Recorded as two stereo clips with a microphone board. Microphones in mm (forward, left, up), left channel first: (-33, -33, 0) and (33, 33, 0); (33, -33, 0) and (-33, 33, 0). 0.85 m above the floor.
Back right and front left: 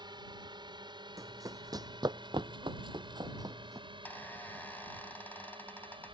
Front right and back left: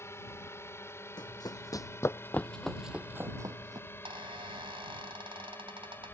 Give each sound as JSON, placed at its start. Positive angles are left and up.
{"t": 0.0, "sound": "a drone", "azimuth_deg": 15}
{"t": 1.2, "sound": "running footsteps", "azimuth_deg": -10}
{"t": 3.9, "sound": "a squeak", "azimuth_deg": 155}